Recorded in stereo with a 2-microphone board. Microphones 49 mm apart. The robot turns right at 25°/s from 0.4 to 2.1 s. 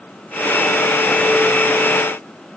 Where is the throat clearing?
No throat clearing in this recording.